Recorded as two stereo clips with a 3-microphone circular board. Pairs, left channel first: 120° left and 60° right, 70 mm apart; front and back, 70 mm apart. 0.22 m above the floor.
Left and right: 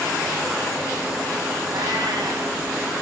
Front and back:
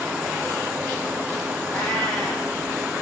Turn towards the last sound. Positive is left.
turn(degrees=-80)